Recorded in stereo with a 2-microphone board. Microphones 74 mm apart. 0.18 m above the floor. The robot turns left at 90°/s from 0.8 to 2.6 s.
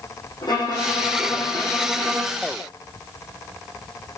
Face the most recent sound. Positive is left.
turn(degrees=-55)